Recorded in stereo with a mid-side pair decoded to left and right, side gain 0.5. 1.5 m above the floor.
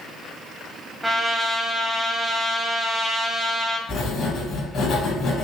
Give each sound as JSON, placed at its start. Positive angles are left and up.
{"t": 1.0, "sound": "a trumpet", "azimuth_deg": -10, "distance_m": 1.2}
{"t": 3.9, "sound": "writing", "azimuth_deg": 55, "distance_m": 2.5}